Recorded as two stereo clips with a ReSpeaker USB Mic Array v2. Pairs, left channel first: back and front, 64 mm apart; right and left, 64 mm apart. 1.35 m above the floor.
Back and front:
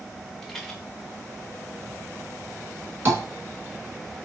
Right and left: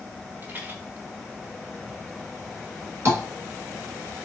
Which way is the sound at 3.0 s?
55° left.